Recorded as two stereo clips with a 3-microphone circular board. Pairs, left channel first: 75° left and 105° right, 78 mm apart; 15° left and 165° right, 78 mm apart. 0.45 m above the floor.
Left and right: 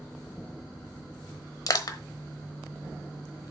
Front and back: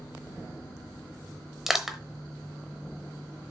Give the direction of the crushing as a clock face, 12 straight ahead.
8 o'clock.